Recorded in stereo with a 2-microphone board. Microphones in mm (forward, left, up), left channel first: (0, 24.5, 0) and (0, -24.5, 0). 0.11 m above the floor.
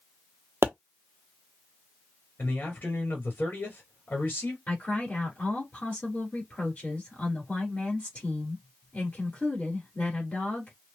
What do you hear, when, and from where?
0.6 s a pop: 60° right (ahead or behind), 0.8 m
2.4 s a man speaking: 40° left (ahead or behind), 1.8 m
4.7 s a woman speaking: 35° left (ahead or behind), 1.7 m